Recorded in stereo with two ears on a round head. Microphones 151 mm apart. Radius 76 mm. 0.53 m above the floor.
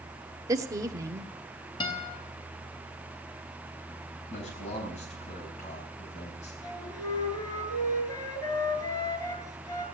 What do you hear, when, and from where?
0.5 s a woman speaking: 20° right (ahead or behind), 1.1 m
1.8 s a guitar: 30° left (ahead or behind), 3.5 m
4.3 s a man speaking: 40° left (ahead or behind), 4.5 m
6.6 s a flute: 25° left (ahead or behind), 3 m